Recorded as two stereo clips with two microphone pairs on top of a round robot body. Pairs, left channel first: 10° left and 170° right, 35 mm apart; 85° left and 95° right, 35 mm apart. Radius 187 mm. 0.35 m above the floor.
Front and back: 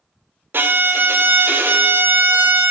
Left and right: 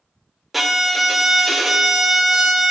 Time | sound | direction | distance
0.5 | a violin | 175° right | 0.5 m